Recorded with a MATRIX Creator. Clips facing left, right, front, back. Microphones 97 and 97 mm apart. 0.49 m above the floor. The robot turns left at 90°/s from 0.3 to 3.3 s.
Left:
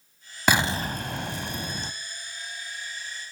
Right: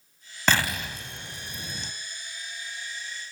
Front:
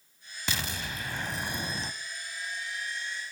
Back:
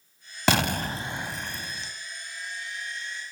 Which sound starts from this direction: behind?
An explosion, at 0.5 s.